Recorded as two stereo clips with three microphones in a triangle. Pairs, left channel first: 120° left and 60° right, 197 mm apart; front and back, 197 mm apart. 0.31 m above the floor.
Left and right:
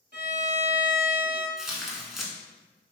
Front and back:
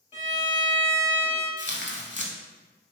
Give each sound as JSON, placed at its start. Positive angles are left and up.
{"t": 0.1, "sound": "a violin", "azimuth_deg": -50, "distance_m": 0.8}
{"t": 1.6, "sound": "tearing paper", "azimuth_deg": 30, "distance_m": 0.6}